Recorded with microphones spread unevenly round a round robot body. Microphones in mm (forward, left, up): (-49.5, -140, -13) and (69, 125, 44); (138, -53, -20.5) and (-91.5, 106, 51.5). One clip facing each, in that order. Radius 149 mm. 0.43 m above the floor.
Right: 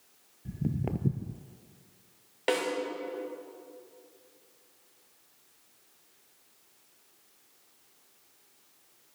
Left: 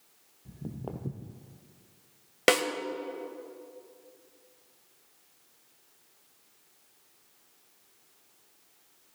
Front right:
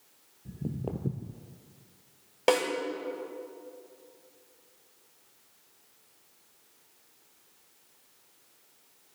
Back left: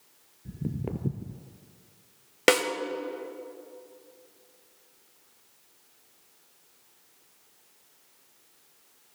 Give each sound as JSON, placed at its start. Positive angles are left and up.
{"t": 0.5, "sound": "footsteps", "azimuth_deg": -155, "distance_m": 0.5}
{"t": 2.5, "sound": "a snare drum", "azimuth_deg": 90, "distance_m": 1.3}